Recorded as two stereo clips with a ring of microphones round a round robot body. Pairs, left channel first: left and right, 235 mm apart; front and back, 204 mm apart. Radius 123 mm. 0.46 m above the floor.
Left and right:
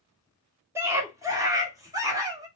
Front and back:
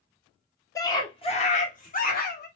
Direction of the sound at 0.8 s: 35° right.